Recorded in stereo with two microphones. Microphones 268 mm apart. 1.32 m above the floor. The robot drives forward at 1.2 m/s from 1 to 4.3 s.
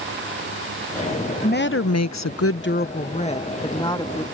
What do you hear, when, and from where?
1.4 s a woman speaking: 35° left (ahead or behind); by 4.2 s 15° left (ahead or behind)